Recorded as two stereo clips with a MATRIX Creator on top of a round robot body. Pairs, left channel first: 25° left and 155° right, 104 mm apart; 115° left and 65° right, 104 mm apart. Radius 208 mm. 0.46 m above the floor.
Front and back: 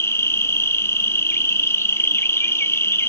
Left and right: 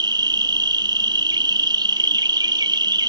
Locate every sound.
0.0 s an insect: 35° right, 0.9 m